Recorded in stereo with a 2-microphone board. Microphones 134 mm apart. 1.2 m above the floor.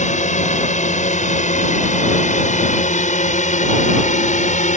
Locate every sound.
0.0 s a drone: 65° left (ahead or behind)